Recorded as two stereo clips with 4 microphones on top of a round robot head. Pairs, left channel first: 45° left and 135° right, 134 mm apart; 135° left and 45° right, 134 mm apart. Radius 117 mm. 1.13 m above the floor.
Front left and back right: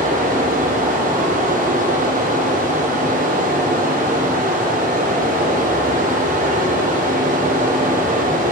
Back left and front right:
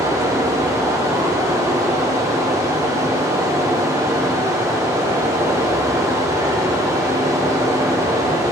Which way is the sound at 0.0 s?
110° right.